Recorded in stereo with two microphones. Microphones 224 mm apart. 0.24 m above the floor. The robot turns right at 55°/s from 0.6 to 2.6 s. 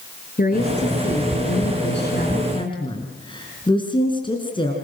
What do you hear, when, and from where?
0.4 s a woman speaking: 45° left, 3.5 m; by 4.8 s 155° left, 3.5 m